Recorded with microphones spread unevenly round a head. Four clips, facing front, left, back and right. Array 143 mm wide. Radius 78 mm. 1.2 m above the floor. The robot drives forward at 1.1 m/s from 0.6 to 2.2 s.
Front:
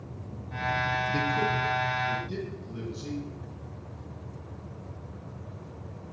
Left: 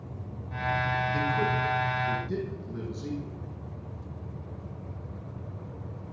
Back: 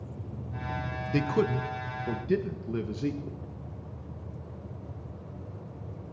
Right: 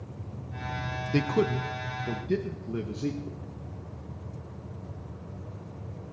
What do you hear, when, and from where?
1.1 s a man speaking: 110° right, 1.1 m; by 3.4 s 150° right, 1.8 m